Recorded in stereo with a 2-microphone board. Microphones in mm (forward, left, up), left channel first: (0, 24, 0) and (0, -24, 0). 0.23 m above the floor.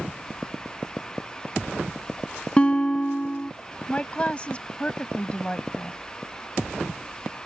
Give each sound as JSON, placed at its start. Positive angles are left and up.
{"t": 2.6, "sound": "a guitar", "side_deg": 25}
{"t": 3.9, "sound": "a woman speaking", "side_deg": 25}